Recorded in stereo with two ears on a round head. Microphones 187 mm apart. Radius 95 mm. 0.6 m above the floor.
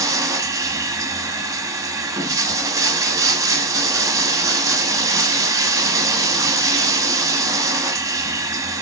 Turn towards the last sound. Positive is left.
turn(degrees=-15)  # may be behind; listen again after turning